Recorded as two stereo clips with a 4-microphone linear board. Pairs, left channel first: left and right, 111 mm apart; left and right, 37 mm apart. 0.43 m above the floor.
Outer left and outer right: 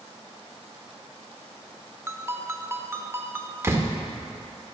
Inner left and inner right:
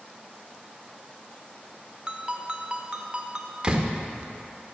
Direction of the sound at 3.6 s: 20° right (ahead or behind).